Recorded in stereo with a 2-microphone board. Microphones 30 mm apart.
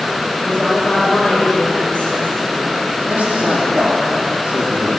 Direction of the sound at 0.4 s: 40° left (ahead or behind).